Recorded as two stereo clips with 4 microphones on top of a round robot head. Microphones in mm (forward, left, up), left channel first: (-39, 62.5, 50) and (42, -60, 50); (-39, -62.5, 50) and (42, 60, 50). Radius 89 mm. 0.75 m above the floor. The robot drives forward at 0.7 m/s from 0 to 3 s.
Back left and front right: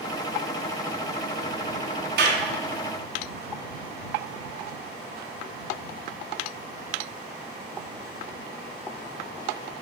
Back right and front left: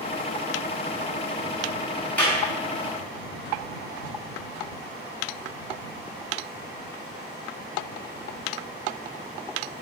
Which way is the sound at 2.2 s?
40° right.